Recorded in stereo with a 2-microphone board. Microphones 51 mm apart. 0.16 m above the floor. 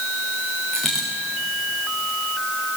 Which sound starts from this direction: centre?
A dropped coin, at 0.7 s.